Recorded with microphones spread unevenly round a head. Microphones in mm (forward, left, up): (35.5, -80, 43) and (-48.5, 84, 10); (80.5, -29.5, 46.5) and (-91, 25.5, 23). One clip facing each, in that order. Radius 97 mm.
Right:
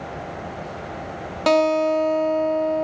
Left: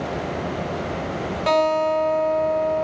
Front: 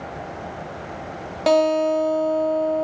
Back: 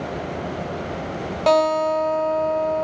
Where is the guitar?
100° right, 0.9 m.